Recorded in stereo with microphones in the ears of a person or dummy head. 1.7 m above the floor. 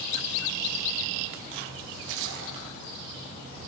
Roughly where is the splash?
Right.